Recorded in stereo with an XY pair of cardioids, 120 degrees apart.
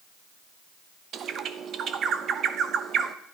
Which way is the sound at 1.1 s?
55° right.